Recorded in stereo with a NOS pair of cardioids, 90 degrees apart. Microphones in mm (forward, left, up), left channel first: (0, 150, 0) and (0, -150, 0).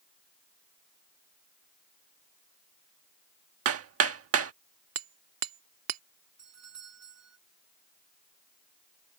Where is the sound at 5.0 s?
60° right.